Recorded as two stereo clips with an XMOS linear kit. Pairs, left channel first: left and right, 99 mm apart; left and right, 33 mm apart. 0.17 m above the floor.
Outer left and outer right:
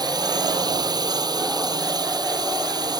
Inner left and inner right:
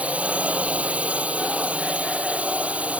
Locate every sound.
0.0 s a drone: 45° right (ahead or behind)